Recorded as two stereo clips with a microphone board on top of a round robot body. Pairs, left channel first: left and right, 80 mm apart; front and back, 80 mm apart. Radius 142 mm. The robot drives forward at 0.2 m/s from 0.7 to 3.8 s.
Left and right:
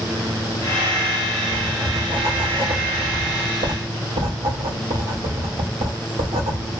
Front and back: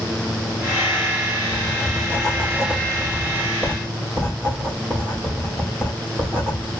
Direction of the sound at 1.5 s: 80° right.